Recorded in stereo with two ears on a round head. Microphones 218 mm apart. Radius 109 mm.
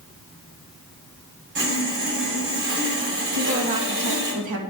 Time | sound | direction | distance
1.6 | sawing | 45° right (ahead or behind) | 3.5 m
3.3 | a woman speaking | 80° right | 2 m